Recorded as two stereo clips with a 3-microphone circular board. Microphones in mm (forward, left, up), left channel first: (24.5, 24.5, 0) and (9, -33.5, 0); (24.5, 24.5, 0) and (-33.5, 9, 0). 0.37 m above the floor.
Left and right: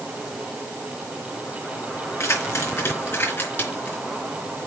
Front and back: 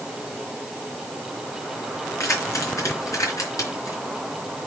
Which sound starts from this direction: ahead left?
Keys jangling, at 2.2 s.